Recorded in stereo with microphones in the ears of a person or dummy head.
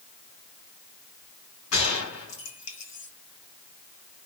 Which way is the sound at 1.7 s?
75° left (ahead or behind).